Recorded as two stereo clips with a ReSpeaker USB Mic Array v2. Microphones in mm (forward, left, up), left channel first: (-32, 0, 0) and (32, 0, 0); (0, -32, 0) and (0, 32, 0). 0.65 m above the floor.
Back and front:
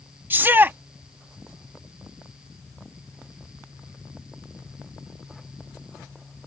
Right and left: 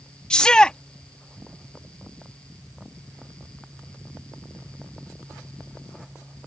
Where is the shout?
20° right.